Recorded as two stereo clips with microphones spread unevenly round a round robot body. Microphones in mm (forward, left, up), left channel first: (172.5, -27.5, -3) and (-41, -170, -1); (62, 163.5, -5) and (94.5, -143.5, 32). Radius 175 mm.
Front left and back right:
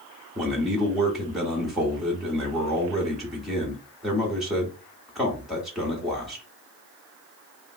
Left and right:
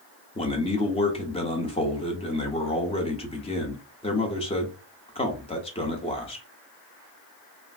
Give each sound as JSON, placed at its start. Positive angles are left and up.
{"t": 0.3, "sound": "a man speaking", "azimuth_deg": 125, "distance_m": 0.5}